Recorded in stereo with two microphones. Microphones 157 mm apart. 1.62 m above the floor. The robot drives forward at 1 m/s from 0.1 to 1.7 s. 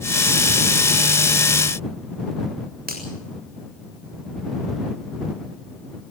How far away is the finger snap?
About 7.5 m.